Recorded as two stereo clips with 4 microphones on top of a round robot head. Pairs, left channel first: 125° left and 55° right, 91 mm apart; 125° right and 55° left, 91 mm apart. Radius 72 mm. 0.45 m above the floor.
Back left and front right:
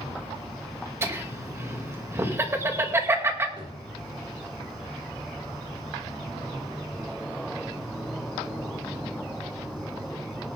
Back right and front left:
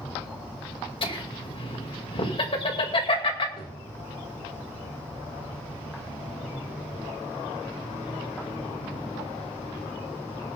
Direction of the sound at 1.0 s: 115° right.